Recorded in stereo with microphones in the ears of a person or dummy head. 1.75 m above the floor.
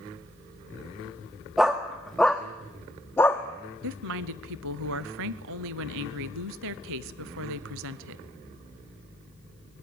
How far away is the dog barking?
About 1.3 m.